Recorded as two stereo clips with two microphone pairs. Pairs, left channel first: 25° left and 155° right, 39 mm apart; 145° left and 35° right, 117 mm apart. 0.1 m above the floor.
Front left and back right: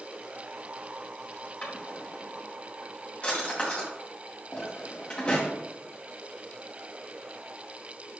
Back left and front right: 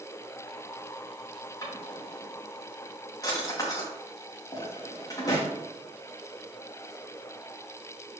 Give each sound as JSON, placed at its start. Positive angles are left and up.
{"t": 1.6, "sound": "a drawer", "azimuth_deg": 90, "distance_m": 4.5}